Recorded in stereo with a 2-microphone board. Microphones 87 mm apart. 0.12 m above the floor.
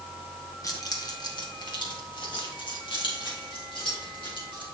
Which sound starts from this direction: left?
Keys jangling, at 0.6 s.